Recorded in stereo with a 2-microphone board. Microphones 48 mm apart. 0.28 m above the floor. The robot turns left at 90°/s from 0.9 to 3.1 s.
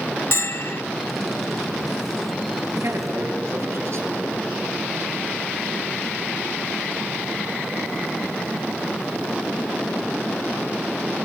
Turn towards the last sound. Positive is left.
turn(degrees=-75)  # may be behind; listen again after turning